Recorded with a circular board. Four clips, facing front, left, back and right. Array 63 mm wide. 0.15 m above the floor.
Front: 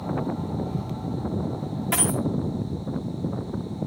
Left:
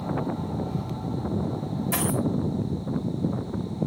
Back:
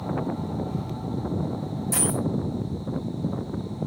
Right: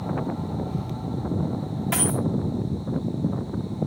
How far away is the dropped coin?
About 4 m.